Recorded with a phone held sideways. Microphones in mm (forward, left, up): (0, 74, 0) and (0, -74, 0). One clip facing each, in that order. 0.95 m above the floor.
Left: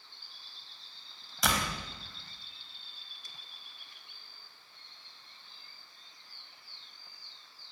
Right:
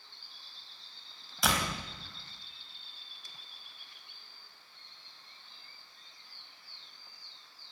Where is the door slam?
Centre (ahead or behind), 4 m.